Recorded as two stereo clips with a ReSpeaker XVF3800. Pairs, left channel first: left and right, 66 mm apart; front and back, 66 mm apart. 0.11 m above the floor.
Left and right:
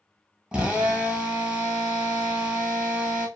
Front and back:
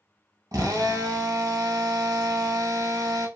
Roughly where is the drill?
Behind.